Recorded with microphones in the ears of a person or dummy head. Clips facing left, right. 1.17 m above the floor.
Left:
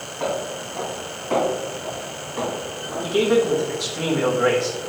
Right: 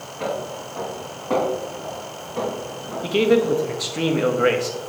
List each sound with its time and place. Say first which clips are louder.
0.2 s footsteps: left 1 dB; 50° right (ahead or behind), 3.5 m; by 3.6 s 65° right (ahead or behind), 3.5 m
3.0 s a man speaking: right 1 dB; 30° right (ahead or behind), 0.7 m